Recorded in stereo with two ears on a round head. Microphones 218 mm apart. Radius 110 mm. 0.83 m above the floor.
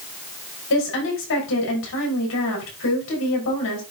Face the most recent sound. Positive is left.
turn(degrees=55)  # may be behind; listen again after turning